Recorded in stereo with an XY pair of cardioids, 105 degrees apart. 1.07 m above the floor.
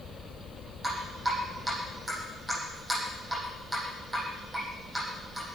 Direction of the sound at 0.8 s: 15° right.